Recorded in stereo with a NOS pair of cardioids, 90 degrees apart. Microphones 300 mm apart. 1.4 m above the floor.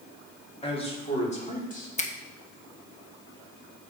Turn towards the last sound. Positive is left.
turn(degrees=25)